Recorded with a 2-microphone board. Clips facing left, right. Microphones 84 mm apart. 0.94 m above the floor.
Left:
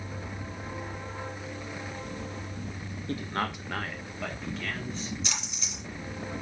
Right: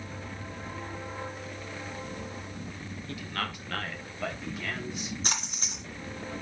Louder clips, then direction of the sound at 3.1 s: Left 5 dB; 40° left (ahead or behind).